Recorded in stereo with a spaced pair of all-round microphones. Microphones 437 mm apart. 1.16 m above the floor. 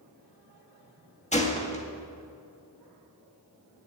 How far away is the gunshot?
About 1.7 m.